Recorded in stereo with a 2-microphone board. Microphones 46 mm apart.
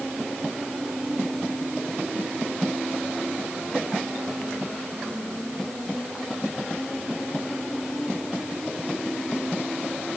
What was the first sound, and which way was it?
Only background noise.